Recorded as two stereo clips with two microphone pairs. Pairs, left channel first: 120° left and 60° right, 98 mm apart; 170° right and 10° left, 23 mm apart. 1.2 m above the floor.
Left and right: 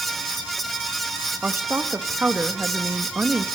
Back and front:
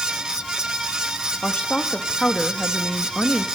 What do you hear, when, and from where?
1.4 s a woman speaking: 130° right, 1.2 m